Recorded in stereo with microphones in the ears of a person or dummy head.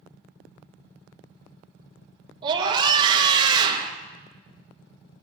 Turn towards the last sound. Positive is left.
turn(degrees=-25)  # may be behind; listen again after turning